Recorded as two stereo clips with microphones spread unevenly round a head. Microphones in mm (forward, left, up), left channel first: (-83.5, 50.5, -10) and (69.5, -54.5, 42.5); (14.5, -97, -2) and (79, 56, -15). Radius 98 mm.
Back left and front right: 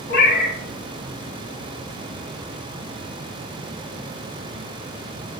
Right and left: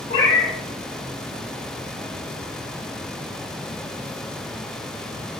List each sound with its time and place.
0.1 s a cat meowing: straight behind, 1.4 m